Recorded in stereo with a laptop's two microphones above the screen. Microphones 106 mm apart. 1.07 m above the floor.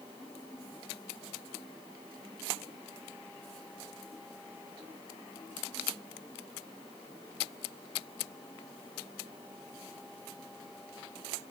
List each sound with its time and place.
Only background noise.